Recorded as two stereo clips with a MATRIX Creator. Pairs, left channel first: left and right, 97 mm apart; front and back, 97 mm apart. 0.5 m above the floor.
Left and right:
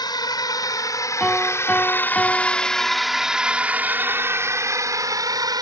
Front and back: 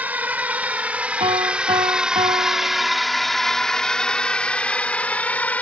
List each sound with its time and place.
0.0 s a drone: 110° left; by 5.6 s 70° right
1.2 s a piano: 175° left